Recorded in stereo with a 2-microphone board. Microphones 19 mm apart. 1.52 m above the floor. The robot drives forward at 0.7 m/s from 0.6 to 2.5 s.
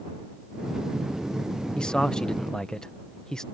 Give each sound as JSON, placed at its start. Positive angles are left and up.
{"t": 1.8, "sound": "a man speaking", "side_deg": 50}